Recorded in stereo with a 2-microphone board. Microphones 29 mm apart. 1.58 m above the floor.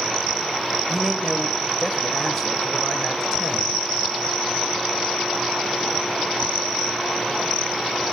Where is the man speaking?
5° right (ahead or behind), 1.1 m.